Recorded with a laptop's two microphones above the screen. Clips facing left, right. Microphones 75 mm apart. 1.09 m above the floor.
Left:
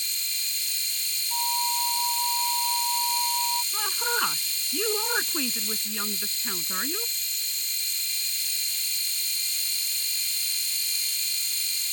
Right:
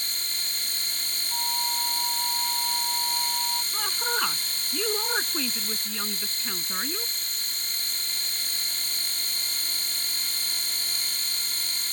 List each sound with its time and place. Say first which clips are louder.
0.0 s a machine running: right 2 dB; 50° right (ahead or behind)
1.3 s a flute: left 4 dB; 15° left (ahead or behind)
3.7 s a woman speaking: left 1 dB; 5° left (ahead or behind)